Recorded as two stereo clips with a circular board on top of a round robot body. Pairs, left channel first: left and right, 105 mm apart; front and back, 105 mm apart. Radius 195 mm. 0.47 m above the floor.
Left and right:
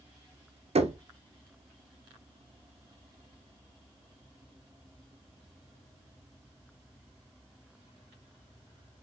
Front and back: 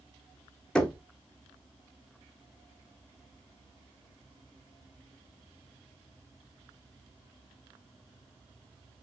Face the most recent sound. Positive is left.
turn(degrees=-85)